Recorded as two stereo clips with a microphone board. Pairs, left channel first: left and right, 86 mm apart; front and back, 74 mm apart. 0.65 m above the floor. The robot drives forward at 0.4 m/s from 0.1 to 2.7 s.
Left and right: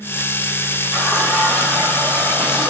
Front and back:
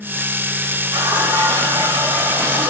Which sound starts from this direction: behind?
A running tap, at 0.9 s.